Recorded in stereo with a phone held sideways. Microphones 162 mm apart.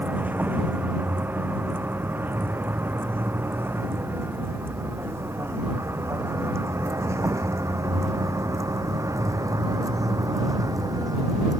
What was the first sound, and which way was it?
A vehicle, 10° right (ahead or behind).